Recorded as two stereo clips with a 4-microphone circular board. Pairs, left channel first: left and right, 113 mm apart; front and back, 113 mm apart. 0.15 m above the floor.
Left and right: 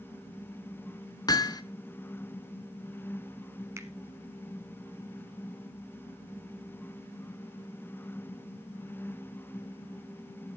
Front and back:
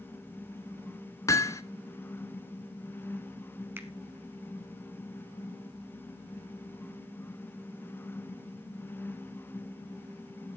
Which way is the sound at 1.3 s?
50° left.